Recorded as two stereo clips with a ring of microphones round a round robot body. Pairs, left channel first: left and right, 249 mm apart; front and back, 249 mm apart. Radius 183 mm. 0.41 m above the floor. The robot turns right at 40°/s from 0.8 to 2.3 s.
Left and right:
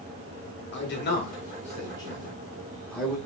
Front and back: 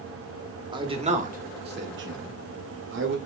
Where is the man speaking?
115° left, 1.5 m; by 3.2 s 175° left, 1.5 m.